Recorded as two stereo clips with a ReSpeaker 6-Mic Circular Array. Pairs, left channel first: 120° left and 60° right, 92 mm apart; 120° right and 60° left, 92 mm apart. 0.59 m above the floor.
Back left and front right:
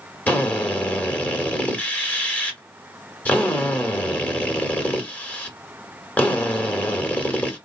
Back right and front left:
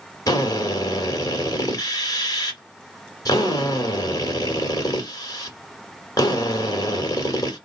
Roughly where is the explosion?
I don't hear an explosion.